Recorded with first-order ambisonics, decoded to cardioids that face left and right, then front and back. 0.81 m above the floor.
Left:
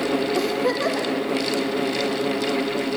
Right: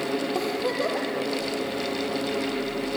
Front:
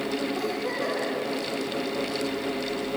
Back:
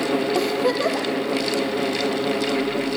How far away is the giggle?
About 3.5 m.